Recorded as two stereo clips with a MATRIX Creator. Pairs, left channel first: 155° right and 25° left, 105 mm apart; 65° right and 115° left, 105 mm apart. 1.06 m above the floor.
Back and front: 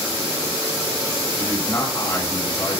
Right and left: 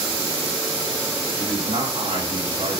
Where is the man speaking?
135° left, 2.5 m.